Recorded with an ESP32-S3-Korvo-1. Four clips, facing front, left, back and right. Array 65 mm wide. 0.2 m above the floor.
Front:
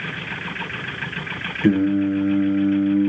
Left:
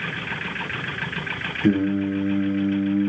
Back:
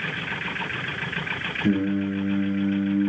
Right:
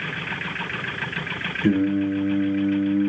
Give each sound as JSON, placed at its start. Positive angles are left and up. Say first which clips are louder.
{"t": 1.6, "sound": "singing", "louder": "even, front 6 dB", "azimuth_deg": 20, "distance_m": 10.0}